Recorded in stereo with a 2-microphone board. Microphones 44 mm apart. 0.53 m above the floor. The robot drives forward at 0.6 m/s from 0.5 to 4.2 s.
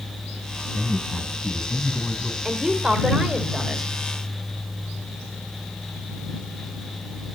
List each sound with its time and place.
0.7 s a man speaking: 25° left (ahead or behind), 3 m; by 2.4 s 20° left (ahead or behind), 3.5 m
2.5 s a woman speaking: 10° right (ahead or behind), 2 m; by 3.9 s 5° right (ahead or behind), 3 m